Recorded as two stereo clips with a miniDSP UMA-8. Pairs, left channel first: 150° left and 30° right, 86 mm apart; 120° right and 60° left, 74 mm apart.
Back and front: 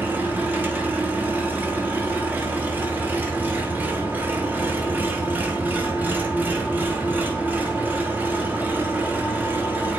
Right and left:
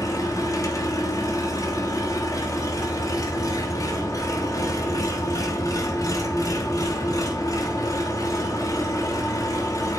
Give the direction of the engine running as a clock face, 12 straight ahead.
3 o'clock.